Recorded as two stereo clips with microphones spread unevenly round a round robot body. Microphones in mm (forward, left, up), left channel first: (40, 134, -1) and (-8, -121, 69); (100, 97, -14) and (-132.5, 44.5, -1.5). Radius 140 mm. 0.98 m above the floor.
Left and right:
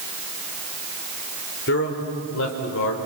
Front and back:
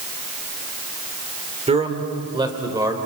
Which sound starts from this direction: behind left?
A man speaking, at 1.7 s.